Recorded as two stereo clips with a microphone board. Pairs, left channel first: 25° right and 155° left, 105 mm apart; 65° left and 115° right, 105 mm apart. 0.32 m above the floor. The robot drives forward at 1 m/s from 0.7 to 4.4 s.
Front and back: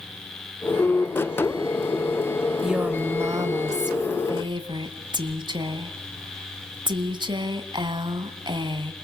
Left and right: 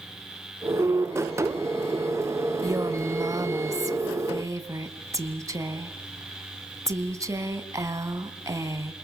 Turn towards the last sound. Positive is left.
turn(degrees=-165)